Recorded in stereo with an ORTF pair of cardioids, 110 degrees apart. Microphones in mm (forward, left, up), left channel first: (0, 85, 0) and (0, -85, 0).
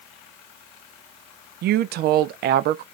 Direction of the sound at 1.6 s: 65° right.